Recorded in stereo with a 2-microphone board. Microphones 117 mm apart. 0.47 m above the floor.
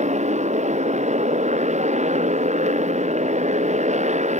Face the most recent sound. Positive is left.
turn(degrees=-90)